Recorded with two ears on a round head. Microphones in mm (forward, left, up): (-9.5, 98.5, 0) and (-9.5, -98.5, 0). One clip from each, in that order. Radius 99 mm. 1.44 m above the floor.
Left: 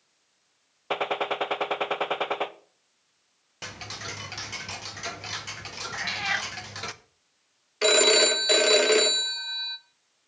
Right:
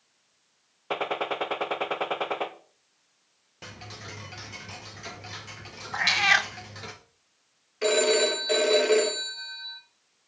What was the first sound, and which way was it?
A gunshot, 15° left (ahead or behind).